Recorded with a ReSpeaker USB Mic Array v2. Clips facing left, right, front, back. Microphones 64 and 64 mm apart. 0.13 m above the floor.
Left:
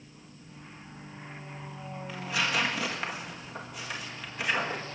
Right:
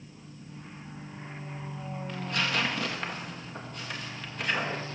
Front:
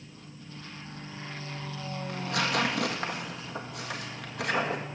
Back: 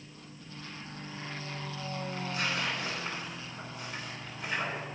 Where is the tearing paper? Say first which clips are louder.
Left 1 dB, front 6 dB; 10° left, 1.8 m.